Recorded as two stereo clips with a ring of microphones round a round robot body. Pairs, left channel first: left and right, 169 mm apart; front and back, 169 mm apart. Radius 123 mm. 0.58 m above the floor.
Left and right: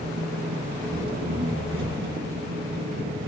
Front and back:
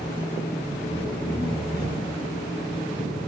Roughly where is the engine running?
Right.